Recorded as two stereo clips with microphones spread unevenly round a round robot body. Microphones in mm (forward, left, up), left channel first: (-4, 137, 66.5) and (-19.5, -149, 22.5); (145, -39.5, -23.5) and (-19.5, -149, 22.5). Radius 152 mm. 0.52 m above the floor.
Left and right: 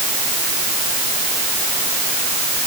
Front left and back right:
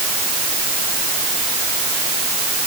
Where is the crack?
No crack in this recording.